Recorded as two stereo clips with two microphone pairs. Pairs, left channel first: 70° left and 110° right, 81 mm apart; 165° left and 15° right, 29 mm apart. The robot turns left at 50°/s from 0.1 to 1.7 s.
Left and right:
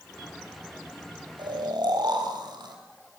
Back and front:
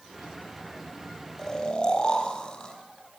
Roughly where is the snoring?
Behind right.